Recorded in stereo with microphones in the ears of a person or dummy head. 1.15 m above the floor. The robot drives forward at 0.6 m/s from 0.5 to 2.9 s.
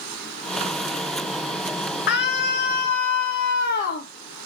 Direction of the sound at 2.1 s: 55° left (ahead or behind).